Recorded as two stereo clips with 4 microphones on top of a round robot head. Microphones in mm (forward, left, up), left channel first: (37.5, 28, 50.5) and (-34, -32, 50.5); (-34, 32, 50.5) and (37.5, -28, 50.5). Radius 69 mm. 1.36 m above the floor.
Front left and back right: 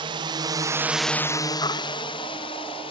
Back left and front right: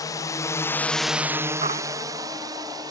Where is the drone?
170° right; by 2.9 s 10° left.